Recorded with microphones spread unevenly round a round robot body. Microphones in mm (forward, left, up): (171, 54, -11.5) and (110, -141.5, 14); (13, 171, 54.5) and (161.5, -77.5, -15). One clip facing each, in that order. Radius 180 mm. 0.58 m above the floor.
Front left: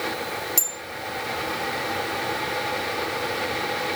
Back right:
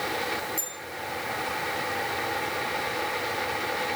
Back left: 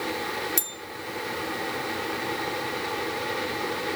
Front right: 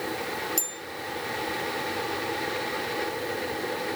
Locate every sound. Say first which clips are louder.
0.6 s a bell: front left 3 dB, even; 65° left, 2 m